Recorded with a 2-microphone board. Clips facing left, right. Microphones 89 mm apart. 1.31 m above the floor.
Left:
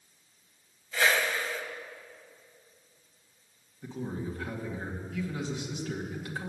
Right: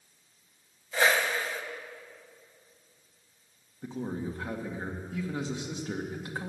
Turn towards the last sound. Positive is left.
turn(degrees=-30)  # may be behind; listen again after turning